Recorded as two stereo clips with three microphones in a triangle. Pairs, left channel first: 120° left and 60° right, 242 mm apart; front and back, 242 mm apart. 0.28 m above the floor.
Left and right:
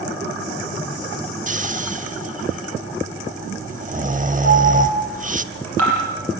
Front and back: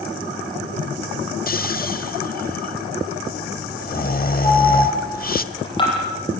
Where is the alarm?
70° right, 8 m.